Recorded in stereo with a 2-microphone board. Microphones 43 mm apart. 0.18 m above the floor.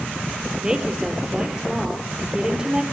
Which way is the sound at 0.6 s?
15° right (ahead or behind).